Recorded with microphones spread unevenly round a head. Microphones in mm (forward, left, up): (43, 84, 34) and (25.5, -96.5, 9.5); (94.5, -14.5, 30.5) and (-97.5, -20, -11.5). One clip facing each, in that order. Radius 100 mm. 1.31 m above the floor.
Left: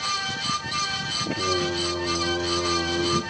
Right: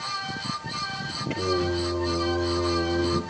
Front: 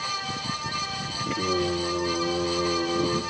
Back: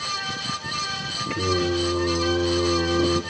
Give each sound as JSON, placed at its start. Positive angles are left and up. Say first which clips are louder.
{"t": 1.3, "sound": "singing", "louder": "right 1 dB, back 3 dB", "azimuth_deg": -150, "distance_m": 3.0}